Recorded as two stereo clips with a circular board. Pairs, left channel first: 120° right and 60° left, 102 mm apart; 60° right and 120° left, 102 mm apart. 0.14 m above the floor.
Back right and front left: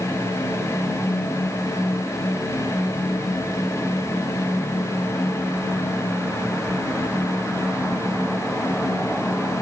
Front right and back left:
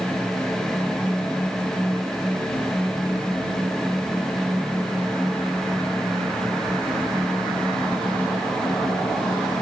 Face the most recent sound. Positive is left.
No sound to turn to.